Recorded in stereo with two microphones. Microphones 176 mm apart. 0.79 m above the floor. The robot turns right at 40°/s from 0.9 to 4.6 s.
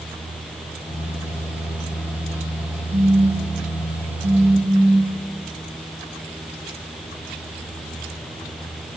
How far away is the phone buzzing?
About 3.5 m.